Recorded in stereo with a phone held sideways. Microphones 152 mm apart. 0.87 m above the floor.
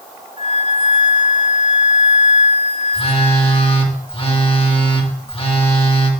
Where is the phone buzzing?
40° left (ahead or behind), 1.6 m.